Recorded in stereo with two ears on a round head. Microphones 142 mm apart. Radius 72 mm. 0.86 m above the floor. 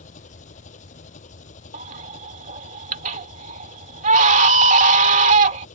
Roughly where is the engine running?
Left.